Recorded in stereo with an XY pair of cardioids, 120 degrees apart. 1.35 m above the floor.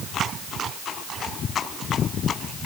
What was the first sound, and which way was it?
Only background noise.